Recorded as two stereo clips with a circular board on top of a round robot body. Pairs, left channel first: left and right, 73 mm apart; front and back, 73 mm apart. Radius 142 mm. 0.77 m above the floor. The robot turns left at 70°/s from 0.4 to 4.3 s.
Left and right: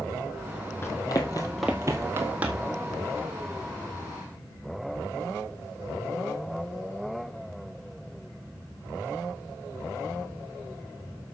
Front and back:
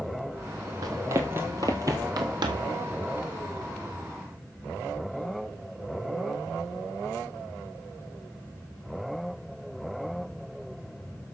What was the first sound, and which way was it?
Running footsteps, 145° left.